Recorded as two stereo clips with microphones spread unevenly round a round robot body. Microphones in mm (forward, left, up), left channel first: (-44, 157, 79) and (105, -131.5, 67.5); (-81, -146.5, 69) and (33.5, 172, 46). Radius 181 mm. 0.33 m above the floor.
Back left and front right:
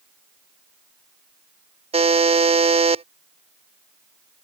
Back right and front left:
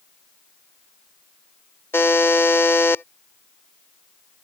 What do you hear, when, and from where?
1.9 s a buzzer: 25° right